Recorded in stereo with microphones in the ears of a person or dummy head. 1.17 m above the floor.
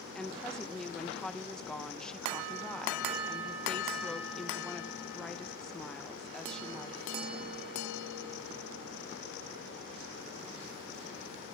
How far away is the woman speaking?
About 0.8 m.